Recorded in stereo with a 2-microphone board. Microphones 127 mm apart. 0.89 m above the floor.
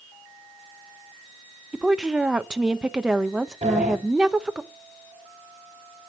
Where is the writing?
No writing in this recording.